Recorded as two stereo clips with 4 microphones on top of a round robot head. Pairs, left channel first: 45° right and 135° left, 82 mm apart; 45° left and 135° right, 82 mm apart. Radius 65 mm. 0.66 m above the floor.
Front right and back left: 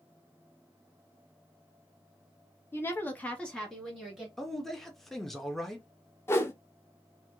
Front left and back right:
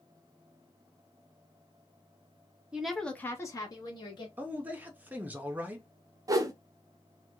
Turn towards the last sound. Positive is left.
turn(degrees=-100)